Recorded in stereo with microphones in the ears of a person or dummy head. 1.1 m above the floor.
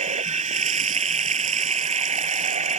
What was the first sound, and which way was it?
Running water, 40° right (ahead or behind).